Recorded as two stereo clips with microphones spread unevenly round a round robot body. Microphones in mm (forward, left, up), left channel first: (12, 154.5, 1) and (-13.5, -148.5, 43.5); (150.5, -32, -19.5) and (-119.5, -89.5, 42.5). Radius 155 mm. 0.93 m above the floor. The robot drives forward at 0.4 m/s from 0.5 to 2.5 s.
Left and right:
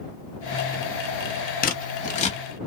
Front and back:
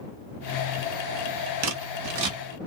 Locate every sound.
1.6 s scissors: 145° left, 1.1 m; by 2.4 s 155° left, 1.4 m